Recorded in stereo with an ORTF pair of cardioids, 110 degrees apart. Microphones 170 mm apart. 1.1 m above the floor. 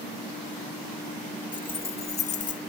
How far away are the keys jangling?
About 1.5 m.